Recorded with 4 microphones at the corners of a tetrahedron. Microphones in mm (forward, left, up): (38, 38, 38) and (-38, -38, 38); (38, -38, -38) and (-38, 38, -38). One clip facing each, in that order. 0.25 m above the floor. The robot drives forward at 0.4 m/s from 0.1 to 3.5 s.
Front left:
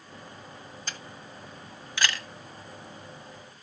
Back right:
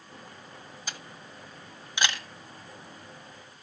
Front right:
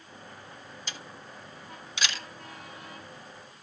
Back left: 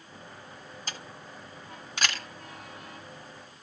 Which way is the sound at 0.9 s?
145° left.